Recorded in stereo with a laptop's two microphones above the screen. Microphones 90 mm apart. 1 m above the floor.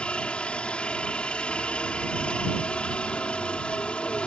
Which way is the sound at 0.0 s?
10° left (ahead or behind).